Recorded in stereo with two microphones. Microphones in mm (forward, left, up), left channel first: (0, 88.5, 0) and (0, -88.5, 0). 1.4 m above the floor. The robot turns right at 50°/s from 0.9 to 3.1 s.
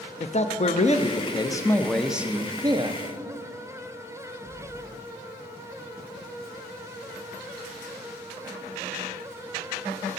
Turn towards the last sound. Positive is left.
turn(degrees=-125)